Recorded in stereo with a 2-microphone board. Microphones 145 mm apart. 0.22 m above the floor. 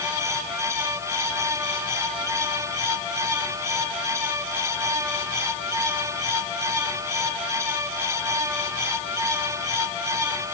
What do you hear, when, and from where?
Only background noise.